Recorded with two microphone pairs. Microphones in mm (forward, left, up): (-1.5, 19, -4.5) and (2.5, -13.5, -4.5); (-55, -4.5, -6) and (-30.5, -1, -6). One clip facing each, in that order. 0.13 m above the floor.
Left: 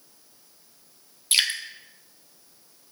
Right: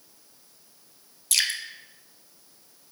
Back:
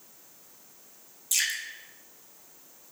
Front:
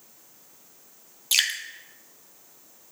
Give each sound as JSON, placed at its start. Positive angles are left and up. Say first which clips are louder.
{"t": 1.3, "sound": "dripping", "louder": "left 3 dB, front 5 dB", "azimuth_deg": 40, "distance_m": 0.7}